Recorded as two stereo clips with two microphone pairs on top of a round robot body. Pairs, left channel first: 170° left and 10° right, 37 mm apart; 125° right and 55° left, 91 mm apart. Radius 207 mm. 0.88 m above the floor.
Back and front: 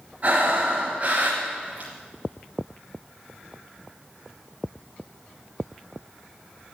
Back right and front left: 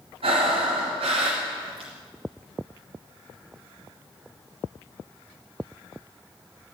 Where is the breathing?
35° left, 1.0 m.